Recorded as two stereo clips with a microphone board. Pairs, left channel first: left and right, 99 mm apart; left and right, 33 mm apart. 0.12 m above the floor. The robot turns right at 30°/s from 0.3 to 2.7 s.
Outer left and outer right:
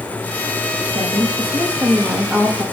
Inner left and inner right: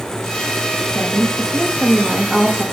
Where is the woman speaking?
45° right, 4.5 m; by 2.6 s 5° left, 4.5 m.